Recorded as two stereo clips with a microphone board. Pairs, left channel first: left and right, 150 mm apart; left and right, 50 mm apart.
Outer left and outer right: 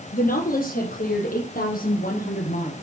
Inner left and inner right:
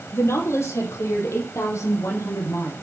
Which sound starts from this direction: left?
A woman speaking, at 0.1 s.